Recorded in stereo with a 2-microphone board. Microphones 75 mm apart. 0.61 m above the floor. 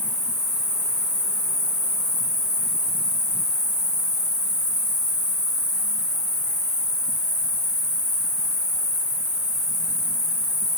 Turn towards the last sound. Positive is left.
turn(degrees=-10)  # may be behind; listen again after turning